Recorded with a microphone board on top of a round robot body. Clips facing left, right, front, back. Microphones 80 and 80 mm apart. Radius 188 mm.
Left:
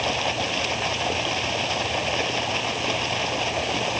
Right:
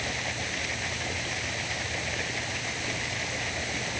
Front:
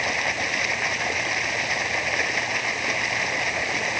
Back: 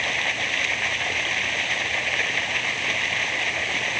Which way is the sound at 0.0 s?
80° left.